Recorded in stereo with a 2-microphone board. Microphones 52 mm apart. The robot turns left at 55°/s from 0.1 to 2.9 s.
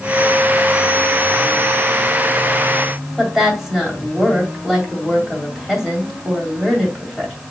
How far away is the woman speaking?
About 2 m.